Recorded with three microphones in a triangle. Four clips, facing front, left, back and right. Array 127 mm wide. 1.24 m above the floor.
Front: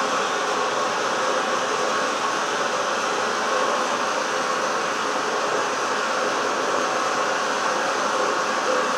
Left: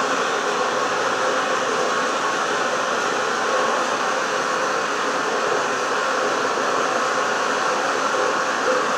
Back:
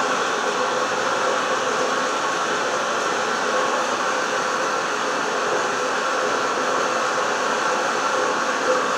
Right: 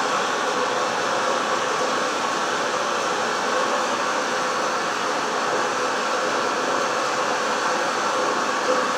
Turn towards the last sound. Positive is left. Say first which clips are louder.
# left 1 dB, back 1 dB
turn(degrees=135)